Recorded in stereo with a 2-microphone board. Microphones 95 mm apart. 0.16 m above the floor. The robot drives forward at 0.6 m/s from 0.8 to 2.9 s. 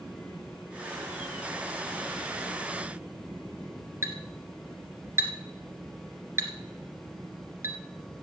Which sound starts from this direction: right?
A clink, at 4.0 s.